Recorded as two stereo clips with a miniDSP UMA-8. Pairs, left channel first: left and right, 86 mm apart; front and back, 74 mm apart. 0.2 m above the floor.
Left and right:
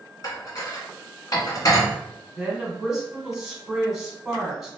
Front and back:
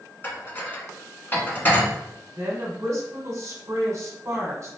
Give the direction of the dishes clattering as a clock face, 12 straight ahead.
10 o'clock.